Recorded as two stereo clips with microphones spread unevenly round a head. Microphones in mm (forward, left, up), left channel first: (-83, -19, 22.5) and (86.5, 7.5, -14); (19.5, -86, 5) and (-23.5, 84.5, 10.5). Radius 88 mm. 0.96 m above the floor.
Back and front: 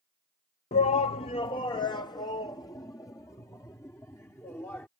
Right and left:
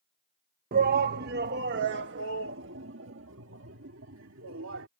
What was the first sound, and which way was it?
A shout, 135° left.